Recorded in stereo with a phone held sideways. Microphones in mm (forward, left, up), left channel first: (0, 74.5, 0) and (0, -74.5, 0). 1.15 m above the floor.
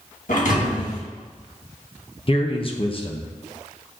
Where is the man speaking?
40° left (ahead or behind), 0.9 m.